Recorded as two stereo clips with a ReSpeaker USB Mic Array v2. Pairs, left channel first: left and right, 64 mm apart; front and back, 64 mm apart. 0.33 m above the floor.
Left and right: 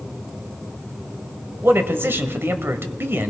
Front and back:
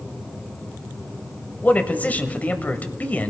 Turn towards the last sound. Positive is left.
turn(degrees=-55)